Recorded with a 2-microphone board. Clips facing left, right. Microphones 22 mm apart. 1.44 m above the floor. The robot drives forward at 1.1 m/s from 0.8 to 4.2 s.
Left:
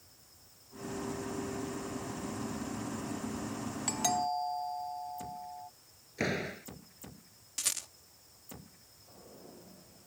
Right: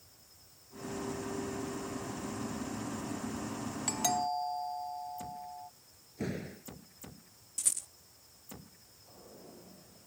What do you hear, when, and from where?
3.9 s a doorbell: 5° left (ahead or behind)
6.2 s a door slam: 60° left (ahead or behind)
7.6 s a rattle: 55° left (ahead or behind)